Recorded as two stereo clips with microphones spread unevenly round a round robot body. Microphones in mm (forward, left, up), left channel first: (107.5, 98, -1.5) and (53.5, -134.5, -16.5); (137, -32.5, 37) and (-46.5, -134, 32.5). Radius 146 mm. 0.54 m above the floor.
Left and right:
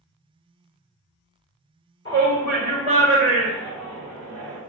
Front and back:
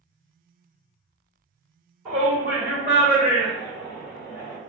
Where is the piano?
I don't hear a piano.